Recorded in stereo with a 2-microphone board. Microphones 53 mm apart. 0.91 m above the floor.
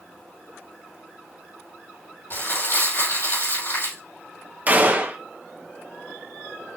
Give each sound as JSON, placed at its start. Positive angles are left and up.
{"t": 2.3, "sound": "crumpling", "side_deg": 45, "distance_m": 5.5}
{"t": 4.7, "sound": "a gunshot", "side_deg": -30, "distance_m": 1.4}